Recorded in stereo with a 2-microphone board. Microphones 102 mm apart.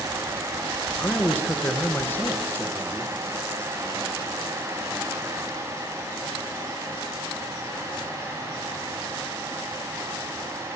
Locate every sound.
1.0 s a man speaking: 20° left (ahead or behind), 1.9 m